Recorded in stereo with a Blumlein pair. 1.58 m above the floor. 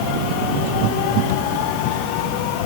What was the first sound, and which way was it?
Only background noise.